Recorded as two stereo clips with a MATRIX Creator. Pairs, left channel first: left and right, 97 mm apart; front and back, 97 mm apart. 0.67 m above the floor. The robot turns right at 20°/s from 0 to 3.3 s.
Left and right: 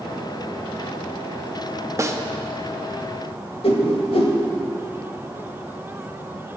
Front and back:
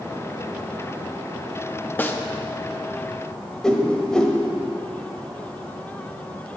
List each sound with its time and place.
2.0 s a snare drum: 55° right, 0.5 m; by 2.2 s 50° right, 0.5 m
3.6 s a whoosh: 85° left, 1.0 m